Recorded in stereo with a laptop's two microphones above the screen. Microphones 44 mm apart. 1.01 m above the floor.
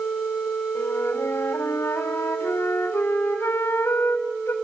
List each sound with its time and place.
0.8 s a flute: 75° left (ahead or behind), 3.5 m